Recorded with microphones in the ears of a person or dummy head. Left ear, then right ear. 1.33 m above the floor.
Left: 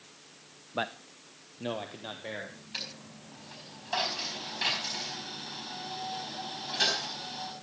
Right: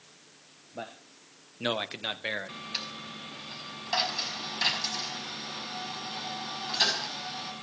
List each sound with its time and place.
0.7 s a man speaking: 60° left (ahead or behind), 0.8 m; by 2.6 s 70° right (ahead or behind), 2 m
2.7 s a dropped coin: 15° right (ahead or behind), 4 m